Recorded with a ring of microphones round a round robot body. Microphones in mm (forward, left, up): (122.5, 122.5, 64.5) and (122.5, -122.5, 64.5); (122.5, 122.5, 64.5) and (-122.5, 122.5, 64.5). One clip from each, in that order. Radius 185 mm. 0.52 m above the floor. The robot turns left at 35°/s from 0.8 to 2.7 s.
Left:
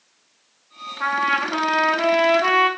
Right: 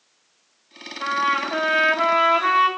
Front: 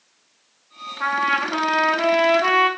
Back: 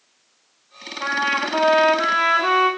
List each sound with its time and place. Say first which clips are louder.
1.0 s a trumpet: left 1 dB, front 1 dB; 45° left, 1.0 m; by 2.7 s 15° right, 1.0 m